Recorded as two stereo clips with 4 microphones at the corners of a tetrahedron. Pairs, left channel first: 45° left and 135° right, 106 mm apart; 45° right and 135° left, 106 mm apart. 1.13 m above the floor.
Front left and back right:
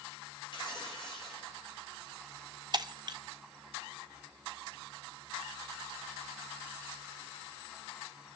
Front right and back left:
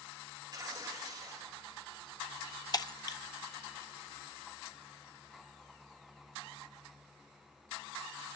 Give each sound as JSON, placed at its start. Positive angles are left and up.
{"t": 0.5, "sound": "tearing paper", "azimuth_deg": 85, "distance_m": 2.0}
{"t": 2.7, "sound": "breaking glass", "azimuth_deg": -95, "distance_m": 0.5}